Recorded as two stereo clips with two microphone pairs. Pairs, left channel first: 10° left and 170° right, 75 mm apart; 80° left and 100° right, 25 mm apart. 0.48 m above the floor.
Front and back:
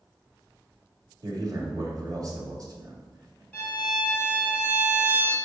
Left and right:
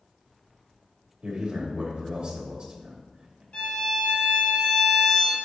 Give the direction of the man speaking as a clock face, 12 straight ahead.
5 o'clock.